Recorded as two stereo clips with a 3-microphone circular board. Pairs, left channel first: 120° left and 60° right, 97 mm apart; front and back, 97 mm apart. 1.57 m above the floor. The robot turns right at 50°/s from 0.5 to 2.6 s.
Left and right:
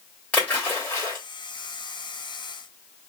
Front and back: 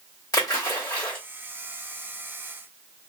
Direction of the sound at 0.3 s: 45° left.